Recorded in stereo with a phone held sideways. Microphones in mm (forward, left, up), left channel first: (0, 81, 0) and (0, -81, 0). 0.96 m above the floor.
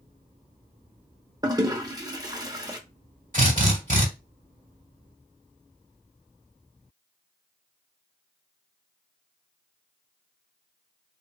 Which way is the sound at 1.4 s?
25° right (ahead or behind).